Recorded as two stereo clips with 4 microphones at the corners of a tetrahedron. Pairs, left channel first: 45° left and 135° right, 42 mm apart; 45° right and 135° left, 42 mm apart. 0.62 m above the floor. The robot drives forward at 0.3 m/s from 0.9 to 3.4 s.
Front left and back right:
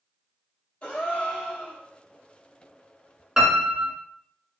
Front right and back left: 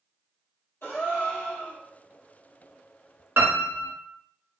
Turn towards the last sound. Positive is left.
turn(degrees=155)